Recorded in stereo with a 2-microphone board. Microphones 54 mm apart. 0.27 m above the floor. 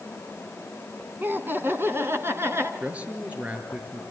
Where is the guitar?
I don't hear a guitar.